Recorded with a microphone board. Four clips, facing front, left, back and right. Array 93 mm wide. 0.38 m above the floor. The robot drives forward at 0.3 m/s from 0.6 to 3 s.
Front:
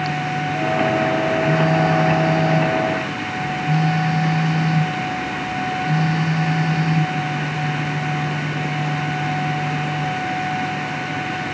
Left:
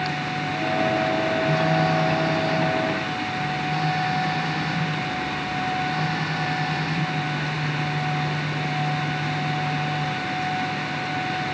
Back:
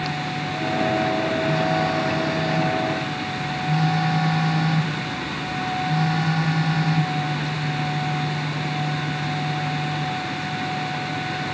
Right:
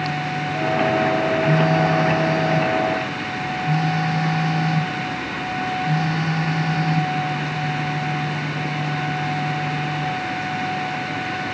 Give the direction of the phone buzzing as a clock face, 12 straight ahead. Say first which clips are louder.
Right 3 dB, front 5 dB; 1 o'clock.